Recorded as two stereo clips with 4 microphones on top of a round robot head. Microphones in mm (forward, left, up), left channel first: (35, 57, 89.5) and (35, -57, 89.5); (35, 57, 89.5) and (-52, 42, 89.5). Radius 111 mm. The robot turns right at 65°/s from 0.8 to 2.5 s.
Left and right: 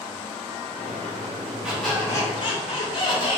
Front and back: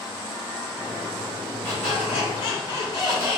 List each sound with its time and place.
1.6 s a squeak: 10° right, 1.0 m; by 3.4 s 50° left, 1.0 m